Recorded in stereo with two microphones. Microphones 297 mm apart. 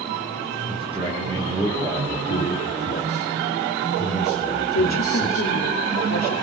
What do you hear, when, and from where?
0.7 s a man speaking: 20° right (ahead or behind), 8 m
2.3 s a man speaking: 50° left (ahead or behind), 6.5 m
4.7 s a woman speaking: 60° left (ahead or behind), 1.5 m